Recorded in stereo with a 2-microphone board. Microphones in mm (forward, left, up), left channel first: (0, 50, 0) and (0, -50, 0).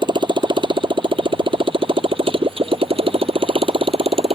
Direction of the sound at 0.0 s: 55° right (ahead or behind).